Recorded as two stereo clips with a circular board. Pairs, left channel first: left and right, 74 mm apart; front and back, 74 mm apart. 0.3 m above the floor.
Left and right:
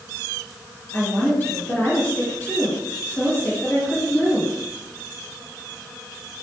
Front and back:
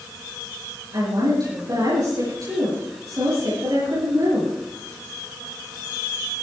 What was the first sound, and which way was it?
A woman speaking, 150° left.